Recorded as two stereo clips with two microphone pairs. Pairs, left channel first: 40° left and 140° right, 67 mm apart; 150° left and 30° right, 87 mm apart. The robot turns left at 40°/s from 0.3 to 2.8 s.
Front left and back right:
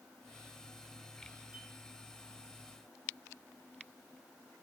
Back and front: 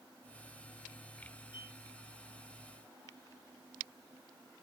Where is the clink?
145° left, 6.5 m; by 1.8 s 140° left, 6.5 m.